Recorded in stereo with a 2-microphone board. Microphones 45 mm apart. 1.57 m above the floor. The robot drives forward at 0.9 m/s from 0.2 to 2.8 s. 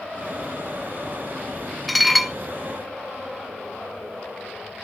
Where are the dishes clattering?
Centre (ahead or behind), 0.5 m.